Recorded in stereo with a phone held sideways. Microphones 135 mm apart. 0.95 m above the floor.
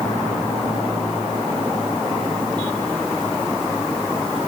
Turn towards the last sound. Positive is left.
No sound to turn to.